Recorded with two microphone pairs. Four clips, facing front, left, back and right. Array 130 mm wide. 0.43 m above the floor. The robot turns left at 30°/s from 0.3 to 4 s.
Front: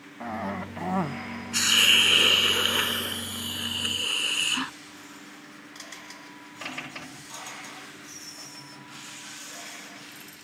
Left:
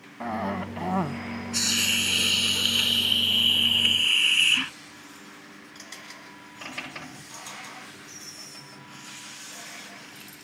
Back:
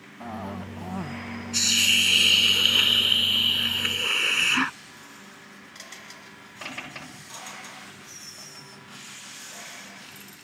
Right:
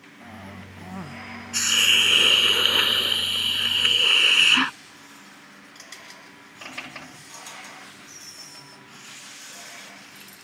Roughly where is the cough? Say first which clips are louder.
Left 13 dB, front 3 dB; left.